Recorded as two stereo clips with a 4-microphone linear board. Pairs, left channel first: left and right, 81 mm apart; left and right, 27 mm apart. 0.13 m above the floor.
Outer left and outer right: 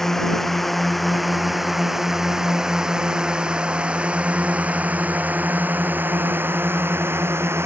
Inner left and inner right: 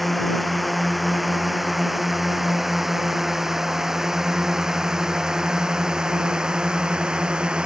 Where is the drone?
5° left (ahead or behind); by 7.7 s 30° right (ahead or behind).